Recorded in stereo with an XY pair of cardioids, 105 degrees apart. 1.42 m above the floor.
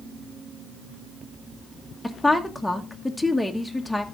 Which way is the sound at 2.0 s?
10° left.